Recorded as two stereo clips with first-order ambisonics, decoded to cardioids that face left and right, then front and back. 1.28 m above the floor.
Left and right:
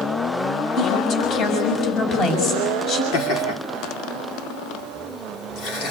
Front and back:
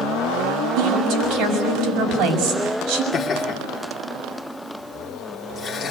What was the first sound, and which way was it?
A woman speaking, 140° left.